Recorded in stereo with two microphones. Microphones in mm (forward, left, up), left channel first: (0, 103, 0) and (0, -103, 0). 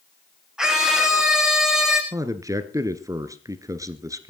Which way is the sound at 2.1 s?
15° right (ahead or behind).